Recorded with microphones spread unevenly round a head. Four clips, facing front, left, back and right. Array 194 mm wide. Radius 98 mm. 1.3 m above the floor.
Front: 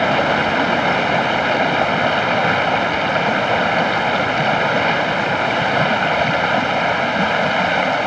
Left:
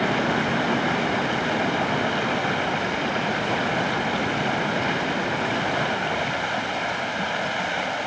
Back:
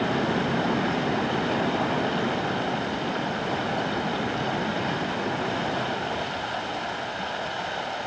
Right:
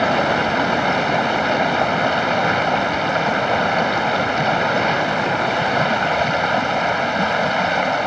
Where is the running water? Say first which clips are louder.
Right 5 dB, front 8 dB; 20° right.